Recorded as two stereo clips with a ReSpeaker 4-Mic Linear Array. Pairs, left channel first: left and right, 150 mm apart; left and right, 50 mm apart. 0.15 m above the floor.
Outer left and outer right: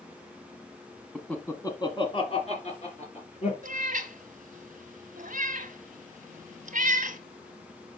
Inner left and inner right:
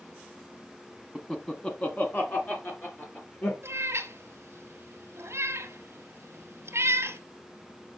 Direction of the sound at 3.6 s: 60° right (ahead or behind).